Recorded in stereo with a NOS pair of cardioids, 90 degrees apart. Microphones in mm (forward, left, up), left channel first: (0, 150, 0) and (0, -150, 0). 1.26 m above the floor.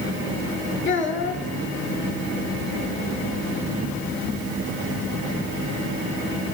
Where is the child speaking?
25° left, 1.3 m.